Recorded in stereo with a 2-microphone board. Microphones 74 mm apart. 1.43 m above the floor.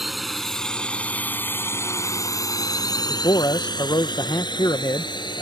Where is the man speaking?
75° left (ahead or behind).